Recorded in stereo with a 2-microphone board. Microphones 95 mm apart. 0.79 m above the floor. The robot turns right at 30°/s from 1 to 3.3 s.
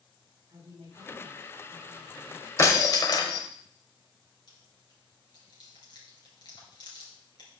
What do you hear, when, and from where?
0.5 s a woman speaking: 95° right, 5 m; by 2.5 s 50° right, 5 m
2.6 s breaking glass: 30° left (ahead or behind), 1.4 m; by 3.4 s 50° left (ahead or behind), 1.4 m
4.5 s chewing: 50° left (ahead or behind), 4 m